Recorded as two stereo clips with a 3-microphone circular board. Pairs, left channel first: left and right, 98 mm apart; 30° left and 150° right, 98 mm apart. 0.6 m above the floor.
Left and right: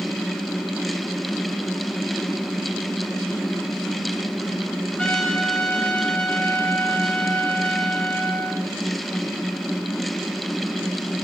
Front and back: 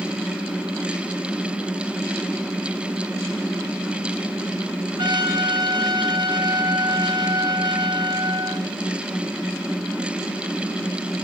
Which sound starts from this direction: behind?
A trumpet, at 5.0 s.